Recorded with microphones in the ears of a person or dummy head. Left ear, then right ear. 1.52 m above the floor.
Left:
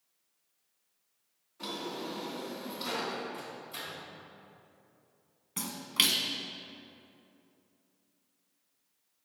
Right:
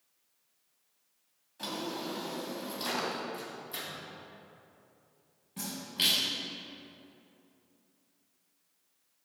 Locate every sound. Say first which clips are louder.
1.6 s a drawer: right 1 dB; 30° right (ahead or behind), 2 m
3.3 s a microwave: right 1 dB; 15° right (ahead or behind), 2.5 m
5.6 s a splash: left 3 dB; 45° left (ahead or behind), 1.0 m